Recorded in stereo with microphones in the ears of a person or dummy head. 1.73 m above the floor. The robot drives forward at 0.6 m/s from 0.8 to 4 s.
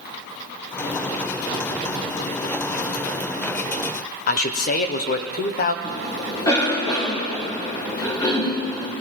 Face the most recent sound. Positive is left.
turn(degrees=20)  # may be behind; listen again after turning